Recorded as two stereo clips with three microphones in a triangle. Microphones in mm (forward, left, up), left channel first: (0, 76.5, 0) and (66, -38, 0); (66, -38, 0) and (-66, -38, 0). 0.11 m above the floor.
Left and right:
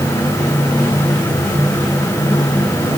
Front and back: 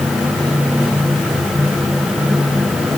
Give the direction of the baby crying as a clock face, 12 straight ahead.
I don't hear a baby crying.